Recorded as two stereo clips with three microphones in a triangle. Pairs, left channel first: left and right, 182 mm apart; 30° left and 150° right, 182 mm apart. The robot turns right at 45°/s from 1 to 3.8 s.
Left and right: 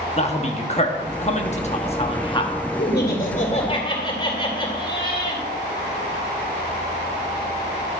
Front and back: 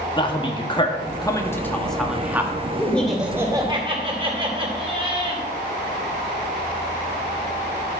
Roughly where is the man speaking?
Left.